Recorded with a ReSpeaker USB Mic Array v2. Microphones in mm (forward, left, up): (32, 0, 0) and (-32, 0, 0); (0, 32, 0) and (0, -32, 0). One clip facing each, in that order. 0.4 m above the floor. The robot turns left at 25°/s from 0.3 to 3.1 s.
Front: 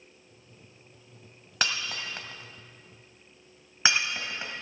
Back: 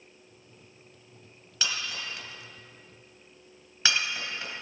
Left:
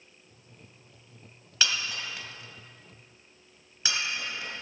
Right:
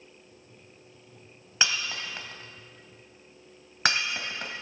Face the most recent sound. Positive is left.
turn(degrees=-60)